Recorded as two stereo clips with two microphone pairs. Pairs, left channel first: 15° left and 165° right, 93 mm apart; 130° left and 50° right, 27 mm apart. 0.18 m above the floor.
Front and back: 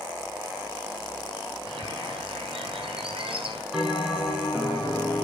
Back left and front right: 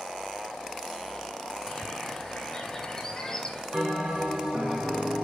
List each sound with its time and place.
1.7 s a bird: 155° right, 2 m
3.7 s a bell: 80° right, 7 m